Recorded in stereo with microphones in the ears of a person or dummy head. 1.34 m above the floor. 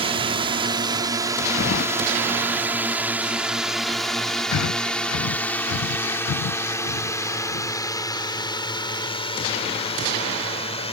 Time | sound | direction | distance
0.0 | a drone | 30° right (ahead or behind) | ?
1.6 | keys jangling | 60° left (ahead or behind) | ?
4.5 | breathing | 80° left | ?